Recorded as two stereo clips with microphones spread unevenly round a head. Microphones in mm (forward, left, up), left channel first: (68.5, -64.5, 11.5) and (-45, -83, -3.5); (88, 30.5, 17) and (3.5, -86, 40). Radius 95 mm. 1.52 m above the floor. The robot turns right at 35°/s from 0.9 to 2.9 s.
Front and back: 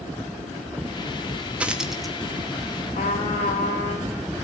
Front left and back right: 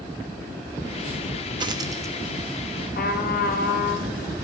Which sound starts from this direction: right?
A dropped coin, at 1.6 s.